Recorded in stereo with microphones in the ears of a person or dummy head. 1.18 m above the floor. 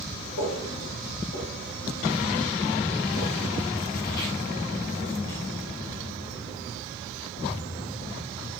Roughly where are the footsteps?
Left.